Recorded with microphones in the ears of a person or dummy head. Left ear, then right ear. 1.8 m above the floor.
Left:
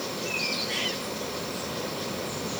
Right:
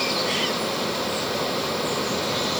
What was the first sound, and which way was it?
Only background noise.